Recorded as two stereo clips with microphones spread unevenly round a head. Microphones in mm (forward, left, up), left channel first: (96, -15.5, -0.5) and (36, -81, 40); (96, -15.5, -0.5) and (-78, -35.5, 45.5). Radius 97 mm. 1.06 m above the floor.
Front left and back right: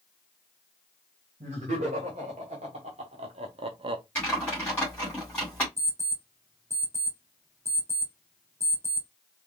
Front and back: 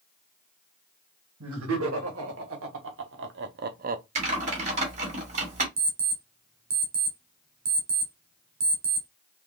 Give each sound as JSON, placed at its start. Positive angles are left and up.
{"t": 1.4, "sound": "laughter", "azimuth_deg": -175, "distance_m": 1.8}
{"t": 4.2, "sound": "typing on a keyboard", "azimuth_deg": 130, "distance_m": 1.8}
{"t": 5.8, "sound": "an alarm clock", "azimuth_deg": 155, "distance_m": 1.6}